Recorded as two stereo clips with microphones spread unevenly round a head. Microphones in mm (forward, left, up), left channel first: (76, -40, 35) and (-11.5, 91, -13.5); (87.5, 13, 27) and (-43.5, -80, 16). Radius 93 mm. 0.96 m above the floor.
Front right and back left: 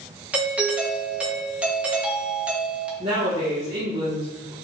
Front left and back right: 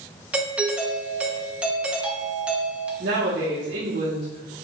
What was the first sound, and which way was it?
A doorbell, 150° left.